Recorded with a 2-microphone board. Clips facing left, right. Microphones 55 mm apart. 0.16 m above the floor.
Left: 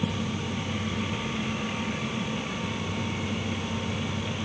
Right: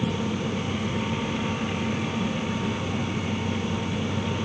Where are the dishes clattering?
No dishes clattering in this recording.